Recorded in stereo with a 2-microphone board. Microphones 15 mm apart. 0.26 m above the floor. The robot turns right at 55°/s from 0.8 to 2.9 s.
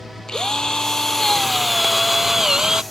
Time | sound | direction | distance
0.3 | a drill | 120° left | ?